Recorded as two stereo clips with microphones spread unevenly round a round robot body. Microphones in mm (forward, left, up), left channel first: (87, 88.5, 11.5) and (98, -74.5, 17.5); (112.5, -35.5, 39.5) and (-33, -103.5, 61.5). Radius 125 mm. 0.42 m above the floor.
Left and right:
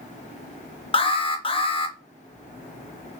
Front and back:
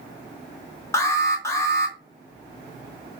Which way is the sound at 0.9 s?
75° left.